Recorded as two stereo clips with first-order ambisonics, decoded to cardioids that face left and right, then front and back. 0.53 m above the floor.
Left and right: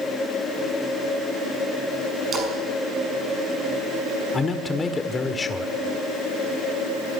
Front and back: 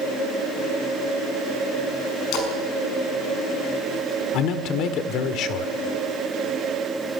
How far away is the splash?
About 6 m.